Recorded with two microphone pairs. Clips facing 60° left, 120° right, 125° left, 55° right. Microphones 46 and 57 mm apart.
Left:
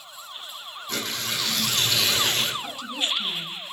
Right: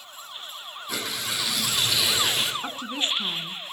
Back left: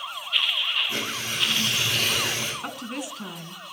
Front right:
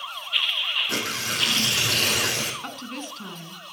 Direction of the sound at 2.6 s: 155° right.